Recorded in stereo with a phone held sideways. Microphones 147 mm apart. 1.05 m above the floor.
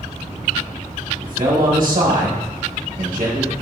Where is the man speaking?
70° right (ahead or behind), 1.6 m.